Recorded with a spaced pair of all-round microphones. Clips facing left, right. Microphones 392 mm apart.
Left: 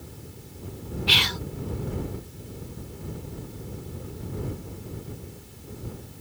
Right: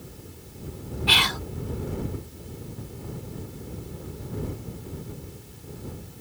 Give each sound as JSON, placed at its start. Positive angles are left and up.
{"t": 1.1, "sound": "whispering", "side_deg": -65}